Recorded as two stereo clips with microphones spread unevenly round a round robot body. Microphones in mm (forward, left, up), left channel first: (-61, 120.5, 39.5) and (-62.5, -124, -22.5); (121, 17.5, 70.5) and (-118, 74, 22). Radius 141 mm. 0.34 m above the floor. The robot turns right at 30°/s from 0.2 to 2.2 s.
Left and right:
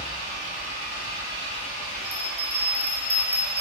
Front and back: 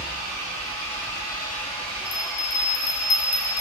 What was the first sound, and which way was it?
An engine running, 10° left.